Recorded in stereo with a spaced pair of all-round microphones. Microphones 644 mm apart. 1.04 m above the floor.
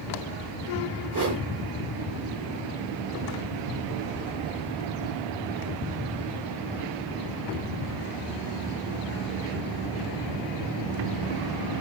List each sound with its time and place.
1.1 s a whoosh: 30° right (ahead or behind), 3.5 m